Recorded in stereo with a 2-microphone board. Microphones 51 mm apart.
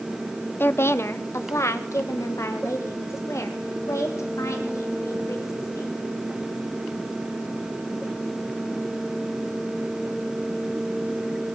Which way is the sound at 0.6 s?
45° left (ahead or behind).